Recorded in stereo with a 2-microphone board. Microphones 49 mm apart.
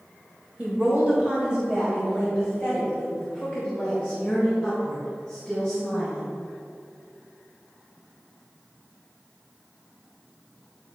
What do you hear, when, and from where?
0.6 s a woman speaking: 30° right (ahead or behind), 1.4 m; by 6.3 s centre (ahead or behind), 4 m